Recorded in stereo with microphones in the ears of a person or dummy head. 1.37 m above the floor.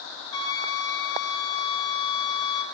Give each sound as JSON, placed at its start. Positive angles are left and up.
{"t": 0.3, "sound": "a flute", "side_deg": 30, "distance_m": 2.0}